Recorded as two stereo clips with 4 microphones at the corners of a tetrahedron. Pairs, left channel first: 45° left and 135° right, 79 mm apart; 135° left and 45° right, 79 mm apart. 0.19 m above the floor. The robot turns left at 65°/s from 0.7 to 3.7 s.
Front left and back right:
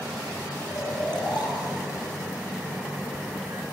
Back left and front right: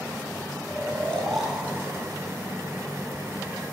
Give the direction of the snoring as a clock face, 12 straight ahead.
9 o'clock.